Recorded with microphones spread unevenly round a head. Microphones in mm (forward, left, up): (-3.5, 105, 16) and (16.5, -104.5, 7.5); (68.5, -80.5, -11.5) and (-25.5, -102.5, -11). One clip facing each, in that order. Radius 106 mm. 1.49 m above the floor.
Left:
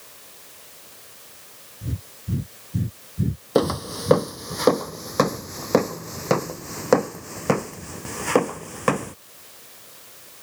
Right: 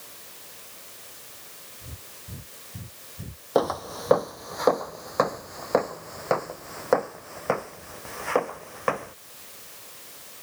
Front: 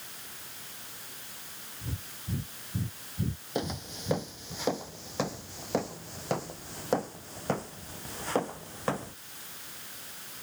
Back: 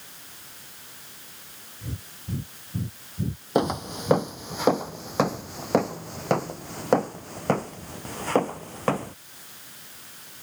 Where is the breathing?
120° left.